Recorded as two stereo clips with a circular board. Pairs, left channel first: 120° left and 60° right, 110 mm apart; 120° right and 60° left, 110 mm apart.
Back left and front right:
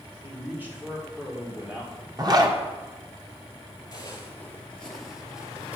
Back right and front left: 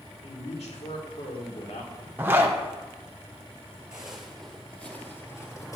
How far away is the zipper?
About 0.8 m.